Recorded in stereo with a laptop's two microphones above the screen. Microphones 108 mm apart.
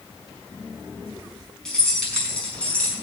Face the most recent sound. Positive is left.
turn(degrees=10)  # may be behind; listen again after turning